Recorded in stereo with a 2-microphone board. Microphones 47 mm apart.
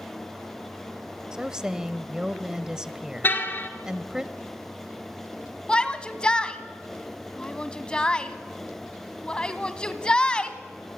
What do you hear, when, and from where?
1.3 s a woman speaking: 15° right (ahead or behind), 1.2 m
3.2 s a car horn: 50° left (ahead or behind), 2 m
5.7 s a shout: 25° left (ahead or behind), 1.7 m